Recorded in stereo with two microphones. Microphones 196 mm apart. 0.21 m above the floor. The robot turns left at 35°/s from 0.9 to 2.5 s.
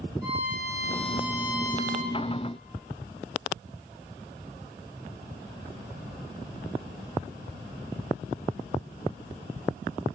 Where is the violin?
70° right, 1.8 m; by 2.1 s 115° right, 1.8 m.